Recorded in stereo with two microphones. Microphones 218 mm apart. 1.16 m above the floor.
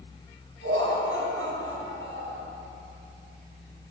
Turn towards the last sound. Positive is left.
turn(degrees=-70)  # may be behind; listen again after turning